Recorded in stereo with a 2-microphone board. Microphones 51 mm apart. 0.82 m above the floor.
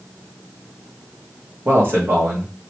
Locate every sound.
1.6 s a man speaking: 45° right (ahead or behind), 1.3 m